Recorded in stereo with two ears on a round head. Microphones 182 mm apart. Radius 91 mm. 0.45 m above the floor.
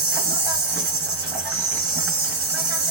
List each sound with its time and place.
0.0 s an insect: 20° right (ahead or behind), 1.4 m